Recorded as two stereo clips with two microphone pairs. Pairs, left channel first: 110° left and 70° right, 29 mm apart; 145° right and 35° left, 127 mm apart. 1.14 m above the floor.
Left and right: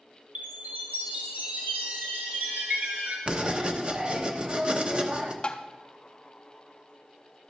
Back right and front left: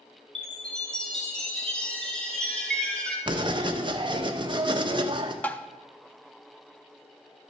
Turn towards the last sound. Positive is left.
turn(degrees=145)